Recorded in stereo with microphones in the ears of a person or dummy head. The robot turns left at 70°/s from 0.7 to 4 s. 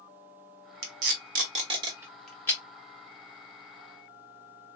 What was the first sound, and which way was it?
Tape being pulled, 65° right (ahead or behind).